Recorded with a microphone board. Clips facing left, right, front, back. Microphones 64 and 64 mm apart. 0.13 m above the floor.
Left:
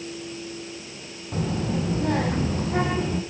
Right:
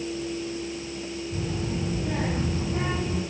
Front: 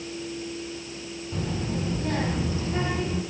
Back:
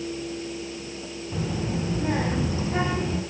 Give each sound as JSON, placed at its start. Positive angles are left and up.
{"t": 1.3, "sound": "a child speaking", "azimuth_deg": 100, "distance_m": 3.0}